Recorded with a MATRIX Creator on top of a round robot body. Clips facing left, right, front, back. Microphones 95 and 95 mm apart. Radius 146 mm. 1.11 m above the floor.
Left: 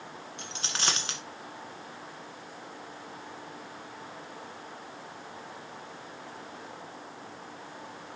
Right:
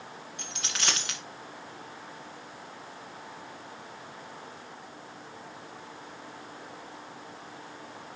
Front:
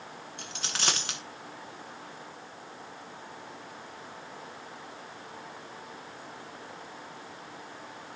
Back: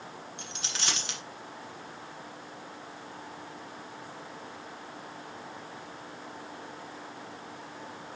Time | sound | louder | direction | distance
0.4 | a dropped coin | left 1 dB, front 4 dB | 40° left | 1.5 m